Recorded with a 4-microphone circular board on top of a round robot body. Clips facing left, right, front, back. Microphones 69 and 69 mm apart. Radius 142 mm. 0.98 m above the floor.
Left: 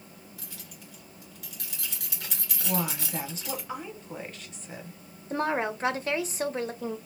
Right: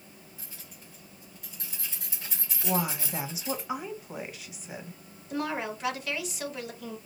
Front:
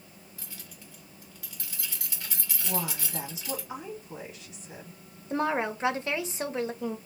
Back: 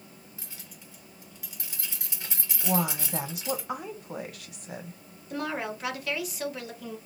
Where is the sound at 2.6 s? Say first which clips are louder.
Right 1 dB, back 6 dB; 170° right, 1.3 m.